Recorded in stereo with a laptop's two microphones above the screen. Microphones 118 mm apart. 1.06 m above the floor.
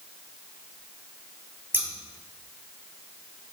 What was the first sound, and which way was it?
Scissors, 20° right (ahead or behind).